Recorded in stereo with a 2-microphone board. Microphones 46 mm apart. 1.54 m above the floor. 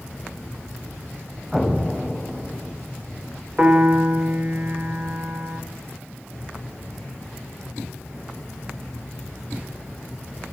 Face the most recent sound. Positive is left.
turn(degrees=-30)  # may be behind; listen again after turning